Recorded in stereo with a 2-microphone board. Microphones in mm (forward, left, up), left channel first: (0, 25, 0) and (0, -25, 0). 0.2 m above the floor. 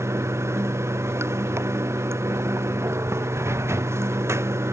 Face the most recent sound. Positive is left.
turn(degrees=-65)  # may be behind; listen again after turning